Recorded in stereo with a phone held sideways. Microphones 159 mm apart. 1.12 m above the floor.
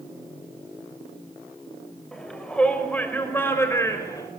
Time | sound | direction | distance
2.1 | a shout | 5° left (ahead or behind) | 5.5 m